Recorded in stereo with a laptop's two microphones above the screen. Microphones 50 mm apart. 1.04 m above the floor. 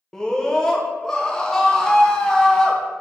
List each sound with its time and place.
0.1 s a scream: 10° left (ahead or behind), 0.8 m